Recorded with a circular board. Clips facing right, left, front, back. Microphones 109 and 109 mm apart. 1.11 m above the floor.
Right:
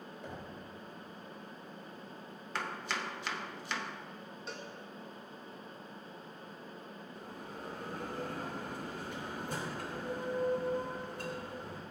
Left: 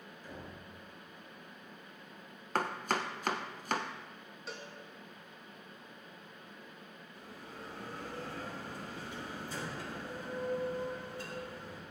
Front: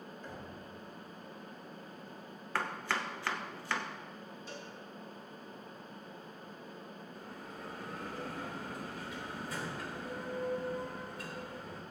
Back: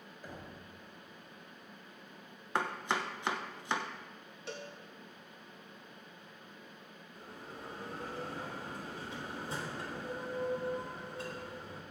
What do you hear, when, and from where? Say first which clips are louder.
0.2 s knocking: right 1 dB, back 1 dB; 100° right, 4 m
2.5 s chopping: left 5 dB, back 2 dB; 115° left, 1.1 m
4.5 s a cowbell: even, back 5 dB; straight behind, 2.0 m
7.2 s a bell: right 2 dB, back 2 dB; 120° right, 3 m